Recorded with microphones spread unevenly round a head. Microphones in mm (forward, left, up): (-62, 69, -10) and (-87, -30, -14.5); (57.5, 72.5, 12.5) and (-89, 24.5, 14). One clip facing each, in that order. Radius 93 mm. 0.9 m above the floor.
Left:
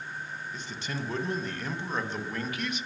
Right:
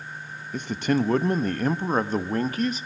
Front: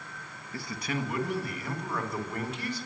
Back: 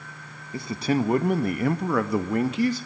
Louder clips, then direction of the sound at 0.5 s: Right 16 dB, back 10 dB; 90° right.